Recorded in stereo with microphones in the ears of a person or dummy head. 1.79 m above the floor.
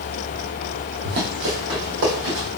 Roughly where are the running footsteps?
Right.